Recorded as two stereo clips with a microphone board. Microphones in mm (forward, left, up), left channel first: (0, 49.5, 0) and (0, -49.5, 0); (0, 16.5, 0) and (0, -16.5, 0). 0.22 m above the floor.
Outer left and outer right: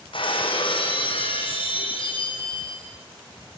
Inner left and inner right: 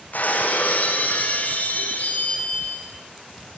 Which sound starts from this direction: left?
Breaking glass, at 0.1 s.